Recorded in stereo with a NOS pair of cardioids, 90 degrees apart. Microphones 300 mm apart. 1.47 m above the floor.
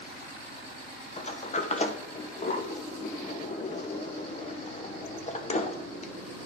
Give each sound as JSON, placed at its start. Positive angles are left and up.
{"t": 1.2, "sound": "a sliding door", "azimuth_deg": 20, "distance_m": 0.9}